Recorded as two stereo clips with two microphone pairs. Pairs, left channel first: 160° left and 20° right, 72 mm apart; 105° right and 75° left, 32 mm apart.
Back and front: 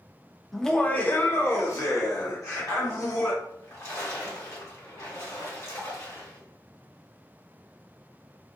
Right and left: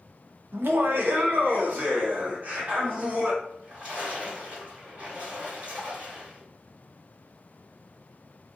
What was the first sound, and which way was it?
Laughter, 70° left.